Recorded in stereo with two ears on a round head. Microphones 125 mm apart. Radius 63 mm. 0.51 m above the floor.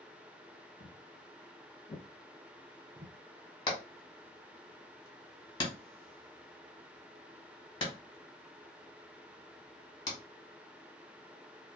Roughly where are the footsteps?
Left.